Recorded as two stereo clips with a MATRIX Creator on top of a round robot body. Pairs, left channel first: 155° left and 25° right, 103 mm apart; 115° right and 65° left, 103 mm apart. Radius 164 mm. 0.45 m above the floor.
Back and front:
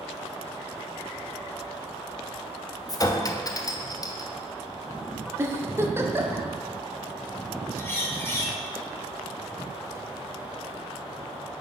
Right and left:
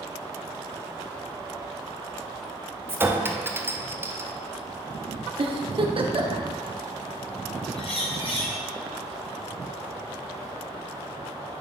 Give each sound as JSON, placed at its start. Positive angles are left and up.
{"t": 2.9, "sound": "a clink", "azimuth_deg": 125, "distance_m": 0.9}
{"t": 5.4, "sound": "a giggle", "azimuth_deg": 40, "distance_m": 1.0}
{"t": 7.8, "sound": "a bird", "azimuth_deg": -135, "distance_m": 1.9}